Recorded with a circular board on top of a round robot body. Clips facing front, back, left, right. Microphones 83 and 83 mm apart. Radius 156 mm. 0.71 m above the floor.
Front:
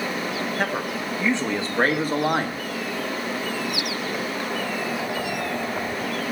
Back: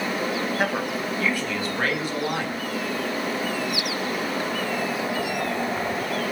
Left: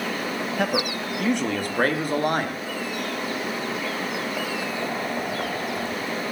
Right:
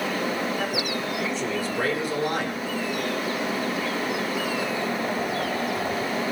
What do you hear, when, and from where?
0.6 s a man speaking: 95° left, 1.4 m; by 2.6 s 40° left, 2.5 m